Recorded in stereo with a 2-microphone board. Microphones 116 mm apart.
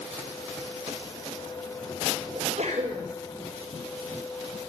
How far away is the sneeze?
About 4 m.